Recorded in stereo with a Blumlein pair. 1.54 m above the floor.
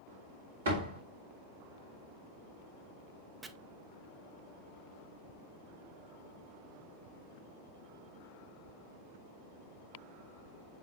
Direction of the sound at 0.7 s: 65° right.